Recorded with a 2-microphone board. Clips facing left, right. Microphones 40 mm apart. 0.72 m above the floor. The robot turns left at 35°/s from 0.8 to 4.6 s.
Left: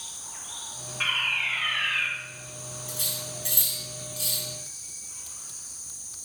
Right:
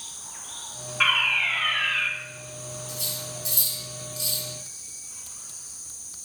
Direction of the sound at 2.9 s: 75° left (ahead or behind).